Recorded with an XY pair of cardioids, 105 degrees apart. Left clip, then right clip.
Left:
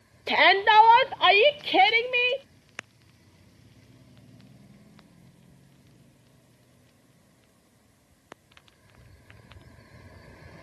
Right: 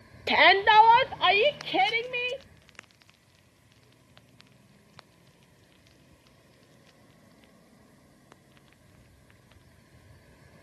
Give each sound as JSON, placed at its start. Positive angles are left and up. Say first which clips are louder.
{"t": 0.3, "sound": "a shout", "louder": "even", "azimuth_deg": -15}